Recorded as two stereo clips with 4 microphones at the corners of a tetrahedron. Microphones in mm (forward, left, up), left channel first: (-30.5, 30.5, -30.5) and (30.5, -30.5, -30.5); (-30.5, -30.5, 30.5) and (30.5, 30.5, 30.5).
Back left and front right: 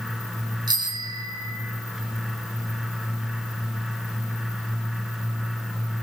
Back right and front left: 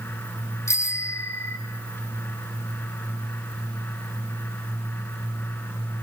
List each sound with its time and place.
0.7 s a bicycle bell: 80° right, 4.5 m